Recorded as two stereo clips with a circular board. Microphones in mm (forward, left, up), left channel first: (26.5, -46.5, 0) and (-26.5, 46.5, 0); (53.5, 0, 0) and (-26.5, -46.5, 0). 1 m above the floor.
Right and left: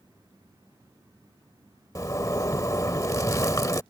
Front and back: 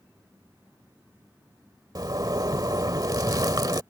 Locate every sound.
1.9 s a zipper: 110° right